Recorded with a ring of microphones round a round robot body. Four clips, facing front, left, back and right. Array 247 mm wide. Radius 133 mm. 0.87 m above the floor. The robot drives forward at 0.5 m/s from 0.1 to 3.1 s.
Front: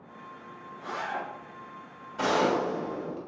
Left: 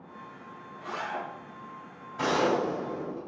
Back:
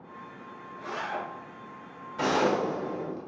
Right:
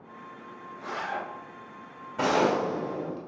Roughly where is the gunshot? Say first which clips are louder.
Right 2 dB, even; right.